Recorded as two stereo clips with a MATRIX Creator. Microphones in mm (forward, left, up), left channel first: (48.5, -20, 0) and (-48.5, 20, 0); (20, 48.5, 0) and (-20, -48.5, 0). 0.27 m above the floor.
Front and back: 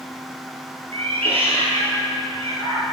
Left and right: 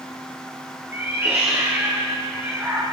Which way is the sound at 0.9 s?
Straight behind.